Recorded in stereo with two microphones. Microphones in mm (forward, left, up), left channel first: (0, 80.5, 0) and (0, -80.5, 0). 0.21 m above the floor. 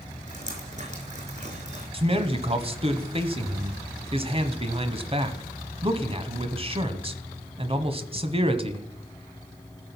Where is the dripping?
45° right (ahead or behind), 5 m.